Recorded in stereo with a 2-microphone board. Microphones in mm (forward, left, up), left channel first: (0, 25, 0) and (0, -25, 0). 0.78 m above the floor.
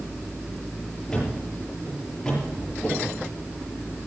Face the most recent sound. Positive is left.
turn(degrees=15)  # may be behind; listen again after turning